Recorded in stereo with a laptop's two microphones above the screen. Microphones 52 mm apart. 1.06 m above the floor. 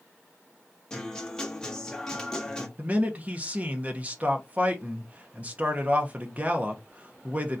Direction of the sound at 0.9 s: 15° left (ahead or behind).